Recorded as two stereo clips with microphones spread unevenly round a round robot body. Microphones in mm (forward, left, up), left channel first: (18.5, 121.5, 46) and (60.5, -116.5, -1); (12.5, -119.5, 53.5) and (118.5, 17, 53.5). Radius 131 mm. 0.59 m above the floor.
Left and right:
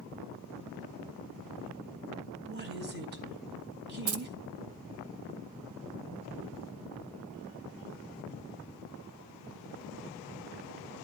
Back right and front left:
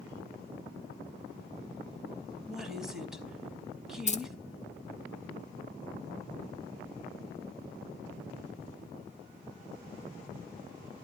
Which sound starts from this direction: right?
Keys jangling, at 4.1 s.